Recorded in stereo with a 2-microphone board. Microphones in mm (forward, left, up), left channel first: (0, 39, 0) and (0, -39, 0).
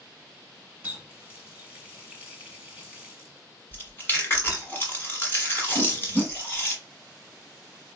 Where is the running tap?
15° right (ahead or behind), 1.0 m.